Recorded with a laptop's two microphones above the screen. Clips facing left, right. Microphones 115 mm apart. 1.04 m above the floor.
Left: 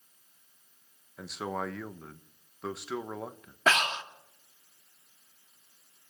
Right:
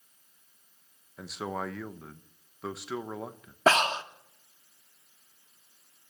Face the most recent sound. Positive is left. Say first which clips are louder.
# right 4 dB
turn(degrees=-35)  # may be behind; listen again after turning